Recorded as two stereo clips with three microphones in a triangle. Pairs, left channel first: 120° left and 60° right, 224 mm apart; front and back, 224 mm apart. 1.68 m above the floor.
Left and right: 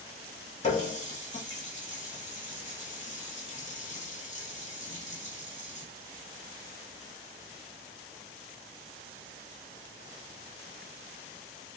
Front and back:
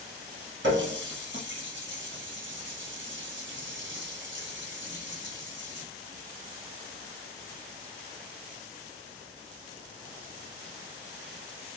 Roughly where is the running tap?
Behind.